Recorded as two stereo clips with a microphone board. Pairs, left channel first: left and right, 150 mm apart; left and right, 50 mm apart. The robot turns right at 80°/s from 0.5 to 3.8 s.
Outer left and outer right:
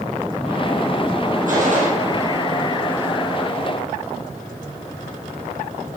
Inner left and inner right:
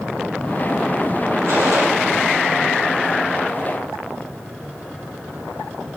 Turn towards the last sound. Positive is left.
turn(degrees=90)